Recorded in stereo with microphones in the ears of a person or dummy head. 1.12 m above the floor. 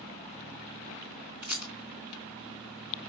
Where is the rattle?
55° right (ahead or behind), 1.7 m.